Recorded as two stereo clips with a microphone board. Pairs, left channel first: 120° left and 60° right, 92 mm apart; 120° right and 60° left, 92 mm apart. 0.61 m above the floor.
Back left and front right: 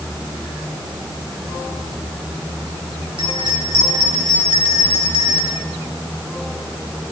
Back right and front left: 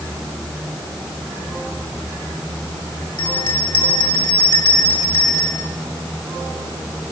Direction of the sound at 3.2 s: 85° right.